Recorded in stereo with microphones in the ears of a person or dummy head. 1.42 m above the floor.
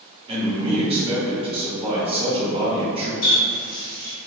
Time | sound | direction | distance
0.3 | a man speaking | 30° right (ahead or behind) | 0.8 m
3.2 | a running tap | 60° left (ahead or behind) | 0.9 m